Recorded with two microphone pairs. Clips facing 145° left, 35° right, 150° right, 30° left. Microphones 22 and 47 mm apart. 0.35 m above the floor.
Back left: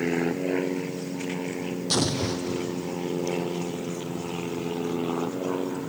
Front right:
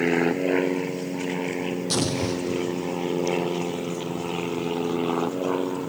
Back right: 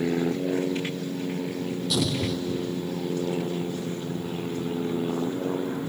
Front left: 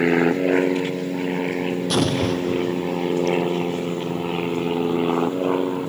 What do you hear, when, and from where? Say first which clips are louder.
0.0 s an aircraft: front right 4 dB, front left 8 dB; 35° left; by 5.9 s 40° left
1.9 s an explosion: back left 1 dB, front left 6 dB; 65° left